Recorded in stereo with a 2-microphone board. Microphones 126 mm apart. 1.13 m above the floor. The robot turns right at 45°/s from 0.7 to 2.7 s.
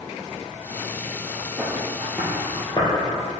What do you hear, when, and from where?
1.6 s footsteps: 30° right (ahead or behind), 2 m; by 2.9 s 30° left (ahead or behind), 1.7 m